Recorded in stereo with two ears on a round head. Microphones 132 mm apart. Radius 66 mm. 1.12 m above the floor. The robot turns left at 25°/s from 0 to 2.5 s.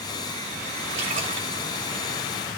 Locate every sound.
0.9 s a splash: 70° right (ahead or behind), 2 m; by 1.6 s 55° right (ahead or behind), 2 m